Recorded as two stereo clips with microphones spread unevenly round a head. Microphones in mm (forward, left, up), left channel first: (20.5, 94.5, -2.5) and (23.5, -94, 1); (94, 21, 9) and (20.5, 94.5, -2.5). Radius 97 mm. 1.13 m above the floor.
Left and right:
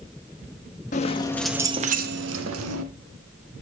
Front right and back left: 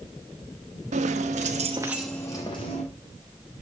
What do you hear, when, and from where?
0.9 s keys jangling: 145° left, 1.3 m; by 2.8 s 105° right, 1.9 m